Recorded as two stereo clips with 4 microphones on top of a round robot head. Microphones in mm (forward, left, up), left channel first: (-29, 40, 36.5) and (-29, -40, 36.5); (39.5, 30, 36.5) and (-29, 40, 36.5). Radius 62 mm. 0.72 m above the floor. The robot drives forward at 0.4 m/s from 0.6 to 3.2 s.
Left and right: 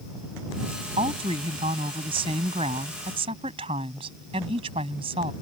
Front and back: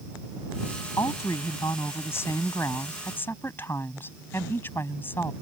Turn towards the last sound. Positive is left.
turn(degrees=-75)